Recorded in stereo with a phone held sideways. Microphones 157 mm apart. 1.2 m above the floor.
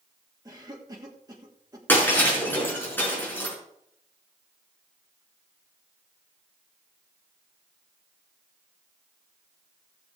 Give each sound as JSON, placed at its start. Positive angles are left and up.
{"t": 0.5, "sound": "a cough", "side_deg": -25, "distance_m": 1.7}
{"t": 1.9, "sound": "breaking glass", "side_deg": 10, "distance_m": 5.5}